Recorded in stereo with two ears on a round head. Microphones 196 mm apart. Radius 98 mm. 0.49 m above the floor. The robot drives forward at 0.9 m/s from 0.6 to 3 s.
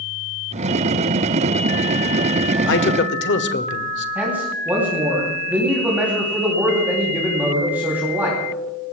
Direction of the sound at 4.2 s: 10° right (ahead or behind).